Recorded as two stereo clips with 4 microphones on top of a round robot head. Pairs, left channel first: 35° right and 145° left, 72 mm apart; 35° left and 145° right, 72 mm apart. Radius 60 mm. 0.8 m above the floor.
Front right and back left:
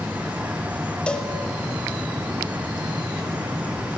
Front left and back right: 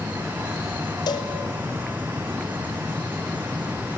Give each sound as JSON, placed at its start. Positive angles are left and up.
{"t": 1.1, "sound": "a cowbell", "azimuth_deg": 40, "distance_m": 2.0}